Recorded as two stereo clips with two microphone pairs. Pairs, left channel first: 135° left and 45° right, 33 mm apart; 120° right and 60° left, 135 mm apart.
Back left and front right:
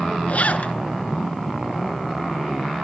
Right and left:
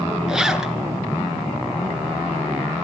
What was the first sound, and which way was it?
A zipper, 145° left.